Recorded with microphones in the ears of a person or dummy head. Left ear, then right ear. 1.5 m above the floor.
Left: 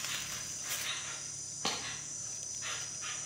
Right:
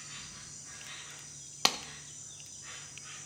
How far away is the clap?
About 0.9 m.